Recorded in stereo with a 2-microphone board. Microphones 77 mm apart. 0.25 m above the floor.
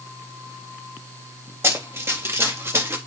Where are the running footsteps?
35° right (ahead or behind), 4.5 m; by 3.0 s 30° right (ahead or behind), 4 m.